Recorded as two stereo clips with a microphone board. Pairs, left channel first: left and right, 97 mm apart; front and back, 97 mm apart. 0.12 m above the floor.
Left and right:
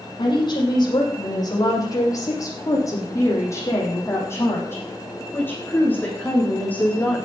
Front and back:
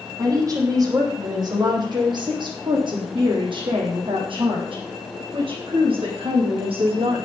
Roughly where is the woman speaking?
Behind left.